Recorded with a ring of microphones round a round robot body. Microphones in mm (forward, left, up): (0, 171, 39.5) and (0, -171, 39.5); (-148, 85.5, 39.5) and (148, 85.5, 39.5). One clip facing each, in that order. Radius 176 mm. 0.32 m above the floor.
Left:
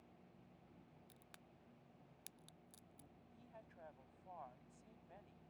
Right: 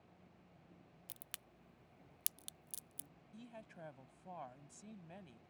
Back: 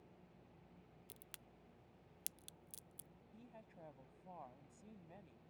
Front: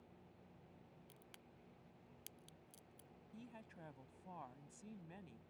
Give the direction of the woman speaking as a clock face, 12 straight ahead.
2 o'clock.